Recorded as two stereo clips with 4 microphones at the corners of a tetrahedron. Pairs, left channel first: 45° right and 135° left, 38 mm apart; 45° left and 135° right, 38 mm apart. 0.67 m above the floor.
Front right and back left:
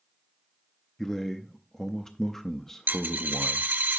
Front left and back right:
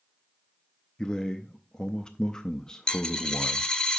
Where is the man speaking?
15° left, 0.5 m.